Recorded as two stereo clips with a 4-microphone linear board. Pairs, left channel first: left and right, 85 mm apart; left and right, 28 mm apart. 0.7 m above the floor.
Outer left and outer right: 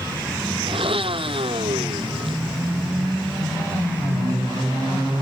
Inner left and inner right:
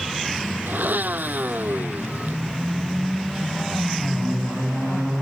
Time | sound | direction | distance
0.7 | a blender | 85° right | ?